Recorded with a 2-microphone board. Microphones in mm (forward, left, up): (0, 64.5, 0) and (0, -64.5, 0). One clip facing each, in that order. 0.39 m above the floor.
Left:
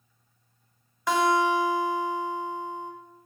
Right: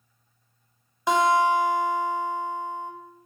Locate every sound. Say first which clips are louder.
1.1 s a guitar: right 2 dB; 20° right (ahead or behind), 1.5 m